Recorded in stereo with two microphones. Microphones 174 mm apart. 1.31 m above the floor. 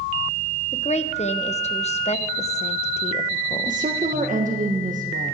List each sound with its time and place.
0.7 s a woman speaking: 40° left (ahead or behind), 0.9 m
3.7 s a woman speaking: 50° right (ahead or behind), 1.5 m